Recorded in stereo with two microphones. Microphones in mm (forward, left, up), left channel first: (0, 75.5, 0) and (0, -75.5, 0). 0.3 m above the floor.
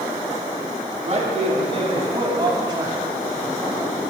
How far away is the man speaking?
About 3 m.